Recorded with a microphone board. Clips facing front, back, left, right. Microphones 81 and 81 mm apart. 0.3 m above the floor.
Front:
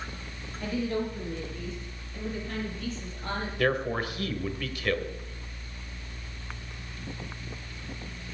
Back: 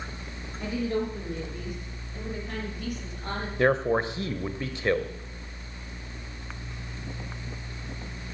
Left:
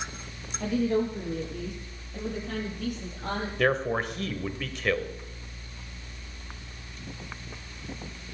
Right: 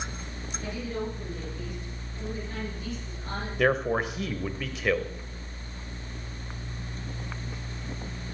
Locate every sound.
0.6 s a woman speaking: 110° left, 8 m; by 3.5 s 100° left, 6.5 m
3.6 s a man speaking: 170° right, 0.9 m